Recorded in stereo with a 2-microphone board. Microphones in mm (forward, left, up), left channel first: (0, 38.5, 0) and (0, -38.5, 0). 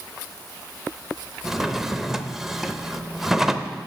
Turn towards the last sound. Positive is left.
turn(degrees=-5)  # may be behind; listen again after turning